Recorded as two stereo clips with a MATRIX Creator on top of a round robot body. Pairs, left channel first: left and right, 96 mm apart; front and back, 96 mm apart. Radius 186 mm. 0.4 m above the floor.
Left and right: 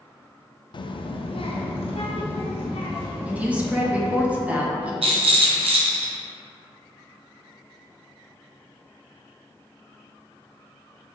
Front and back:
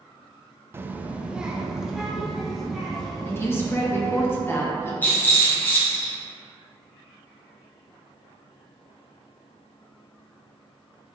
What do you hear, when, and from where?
0.7 s a child speaking: 115° left, 0.5 m; by 4.3 s 85° left, 2 m
3.3 s a woman speaking: 30° right, 1.2 m
5.0 s a rattle: 75° right, 0.9 m